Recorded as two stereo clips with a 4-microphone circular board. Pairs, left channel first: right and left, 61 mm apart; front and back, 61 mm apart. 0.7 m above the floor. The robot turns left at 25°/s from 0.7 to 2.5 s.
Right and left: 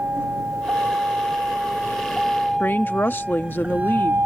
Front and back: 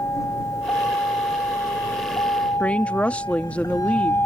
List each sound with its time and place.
0.0 s a vehicle: 35° left; by 4.3 s 50° left
2.6 s a woman speaking: 55° right